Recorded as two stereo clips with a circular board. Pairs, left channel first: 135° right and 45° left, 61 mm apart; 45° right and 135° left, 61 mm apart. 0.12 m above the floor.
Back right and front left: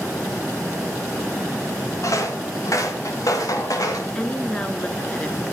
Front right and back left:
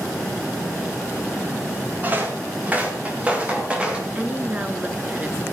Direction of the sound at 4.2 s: 170° left.